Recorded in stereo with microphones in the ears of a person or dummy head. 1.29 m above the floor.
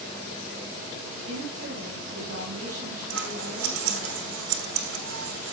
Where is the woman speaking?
50° right (ahead or behind), 8 m.